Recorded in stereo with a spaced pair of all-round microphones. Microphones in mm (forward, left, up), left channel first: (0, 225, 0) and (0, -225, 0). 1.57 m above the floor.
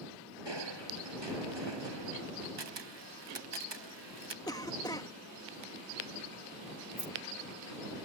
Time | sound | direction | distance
0.5 | crushing | 65° right (ahead or behind) | ?
2.6 | a camera shutter | 65° right (ahead or behind) | ?
4.5 | a cough | 10° left (ahead or behind) | ?
7.0 | keys jangling | 35° right (ahead or behind) | ?